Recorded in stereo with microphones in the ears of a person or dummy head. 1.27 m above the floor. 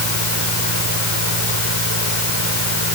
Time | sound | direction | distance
0.0 | a fan | 70° right (ahead or behind) | ?